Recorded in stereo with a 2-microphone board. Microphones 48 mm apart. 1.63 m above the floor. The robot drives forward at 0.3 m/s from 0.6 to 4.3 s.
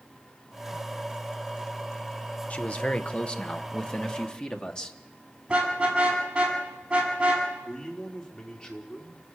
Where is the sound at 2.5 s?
25° left (ahead or behind), 1.3 m; by 5.0 s 20° left (ahead or behind), 1.8 m.